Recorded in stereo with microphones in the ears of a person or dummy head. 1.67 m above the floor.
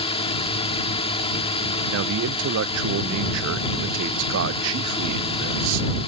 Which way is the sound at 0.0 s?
30° left (ahead or behind).